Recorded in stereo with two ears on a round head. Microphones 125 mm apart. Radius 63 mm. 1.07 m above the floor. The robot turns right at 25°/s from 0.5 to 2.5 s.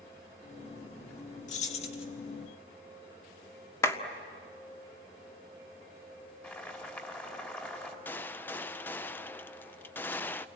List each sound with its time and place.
1.5 s keys jangling: 55° left (ahead or behind), 1.7 m; by 2.0 s 40° left (ahead or behind), 1.7 m
3.8 s a clap: 20° left (ahead or behind), 1.6 m
6.4 s boiling: 15° left (ahead or behind), 3 m
8.1 s a gunshot: 15° left (ahead or behind), 0.6 m